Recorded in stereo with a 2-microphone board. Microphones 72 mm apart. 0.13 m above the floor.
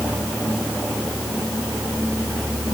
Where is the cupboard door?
I don't hear a cupboard door.